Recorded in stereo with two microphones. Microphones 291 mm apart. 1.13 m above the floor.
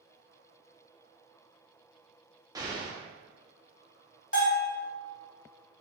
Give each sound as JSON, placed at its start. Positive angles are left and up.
{"t": 2.5, "sound": "an explosion", "side_deg": -15, "distance_m": 0.5}
{"t": 4.3, "sound": "a bell", "side_deg": 45, "distance_m": 1.3}